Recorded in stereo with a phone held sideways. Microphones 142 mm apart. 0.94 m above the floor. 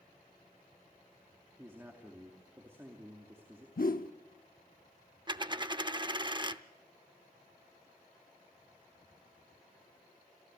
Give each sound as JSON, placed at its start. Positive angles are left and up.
{"t": 1.6, "sound": "a man speaking", "side_deg": -15, "distance_m": 2.5}
{"t": 3.8, "sound": "a whoosh", "side_deg": 70, "distance_m": 0.8}
{"t": 5.3, "sound": "a dropped coin", "side_deg": -30, "distance_m": 0.6}